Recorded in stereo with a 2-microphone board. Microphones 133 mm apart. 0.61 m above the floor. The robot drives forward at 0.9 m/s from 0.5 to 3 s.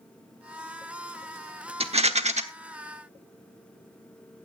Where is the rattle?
50° right (ahead or behind), 1.1 m; by 2.4 s 60° right (ahead or behind), 1.0 m.